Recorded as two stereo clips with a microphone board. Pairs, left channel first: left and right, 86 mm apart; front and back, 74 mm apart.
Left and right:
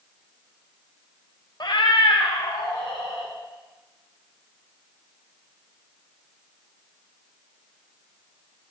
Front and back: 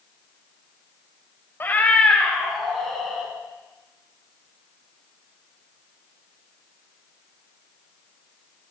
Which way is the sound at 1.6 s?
60° left.